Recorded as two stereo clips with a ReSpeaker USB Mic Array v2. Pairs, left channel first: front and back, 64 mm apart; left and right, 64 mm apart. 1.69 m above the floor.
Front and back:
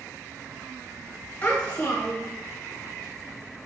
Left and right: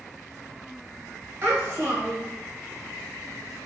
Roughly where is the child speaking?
Ahead right.